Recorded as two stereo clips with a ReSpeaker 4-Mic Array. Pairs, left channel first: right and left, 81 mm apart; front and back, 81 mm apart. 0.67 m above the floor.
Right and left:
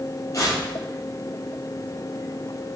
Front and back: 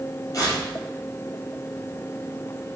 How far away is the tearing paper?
About 4 m.